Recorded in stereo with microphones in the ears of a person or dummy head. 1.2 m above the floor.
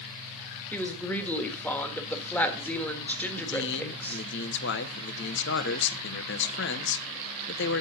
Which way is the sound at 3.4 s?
60° left (ahead or behind).